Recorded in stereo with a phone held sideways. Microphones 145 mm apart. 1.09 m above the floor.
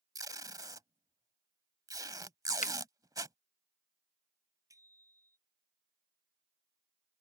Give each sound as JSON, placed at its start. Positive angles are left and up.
{"t": 0.1, "sound": "tape being pulled", "side_deg": -25}
{"t": 2.6, "sound": "a finger snap", "side_deg": 60}
{"t": 4.7, "sound": "a bicycle bell", "side_deg": -20}